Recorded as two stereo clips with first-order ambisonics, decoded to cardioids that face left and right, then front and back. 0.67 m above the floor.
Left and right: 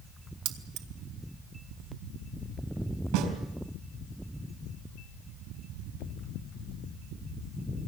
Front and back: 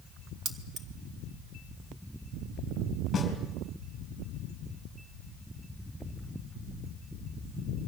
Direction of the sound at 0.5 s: 115° right.